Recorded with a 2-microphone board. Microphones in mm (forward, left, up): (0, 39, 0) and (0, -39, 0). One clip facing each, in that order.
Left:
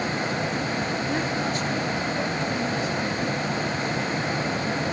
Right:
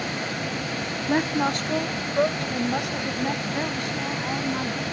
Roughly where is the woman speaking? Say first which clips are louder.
Right 3 dB; right.